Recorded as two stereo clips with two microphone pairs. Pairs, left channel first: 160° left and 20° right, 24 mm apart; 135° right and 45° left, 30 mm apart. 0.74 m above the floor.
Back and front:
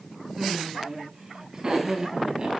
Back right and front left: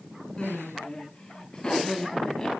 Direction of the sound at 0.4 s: 80° right.